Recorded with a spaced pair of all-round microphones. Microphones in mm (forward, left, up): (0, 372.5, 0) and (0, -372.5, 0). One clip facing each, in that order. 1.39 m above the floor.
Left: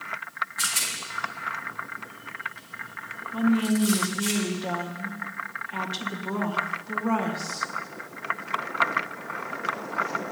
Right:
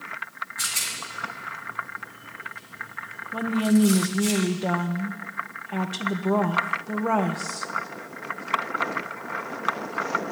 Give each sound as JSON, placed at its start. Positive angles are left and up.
{"t": 0.6, "sound": "a rattle", "side_deg": 5, "distance_m": 2.5}
{"t": 3.3, "sound": "a woman speaking", "side_deg": -75, "distance_m": 1.3}